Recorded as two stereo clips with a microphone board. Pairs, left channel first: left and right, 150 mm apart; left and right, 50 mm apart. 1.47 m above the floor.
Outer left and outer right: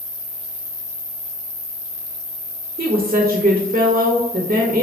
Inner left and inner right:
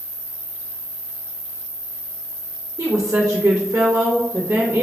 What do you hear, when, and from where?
0.0 s an insect: 55° left (ahead or behind), 1.0 m
2.8 s a woman speaking: 65° right (ahead or behind), 0.7 m